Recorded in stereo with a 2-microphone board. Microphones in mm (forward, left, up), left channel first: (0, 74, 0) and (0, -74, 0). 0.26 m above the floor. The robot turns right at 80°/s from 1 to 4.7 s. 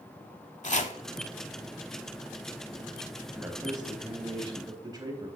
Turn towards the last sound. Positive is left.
turn(degrees=-55)